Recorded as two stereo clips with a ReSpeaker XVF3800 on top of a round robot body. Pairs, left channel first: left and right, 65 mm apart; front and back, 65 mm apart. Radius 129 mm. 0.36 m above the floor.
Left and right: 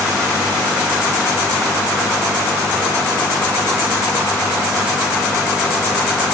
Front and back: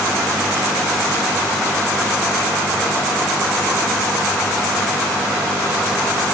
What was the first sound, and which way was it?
Only background noise.